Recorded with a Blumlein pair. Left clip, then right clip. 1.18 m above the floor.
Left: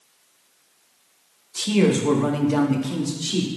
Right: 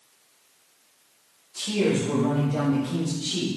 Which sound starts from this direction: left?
A man speaking, at 1.6 s.